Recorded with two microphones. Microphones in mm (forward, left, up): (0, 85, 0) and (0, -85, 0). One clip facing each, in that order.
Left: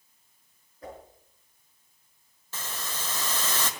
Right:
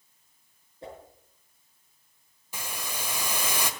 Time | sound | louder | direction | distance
0.8 | a whoosh | even | 25° right (ahead or behind) | 5.5 m
2.5 | a hiss | right 1 dB | 10° right (ahead or behind) | 1.5 m